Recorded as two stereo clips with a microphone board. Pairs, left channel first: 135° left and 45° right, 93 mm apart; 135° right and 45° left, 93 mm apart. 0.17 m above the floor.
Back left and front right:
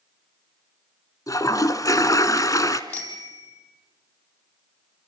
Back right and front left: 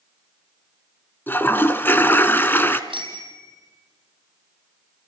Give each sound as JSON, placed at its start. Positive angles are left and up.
{"t": 1.3, "sound": "a toilet flushing", "azimuth_deg": 165, "distance_m": 1.3}
{"t": 2.9, "sound": "a bicycle bell", "azimuth_deg": 70, "distance_m": 4.5}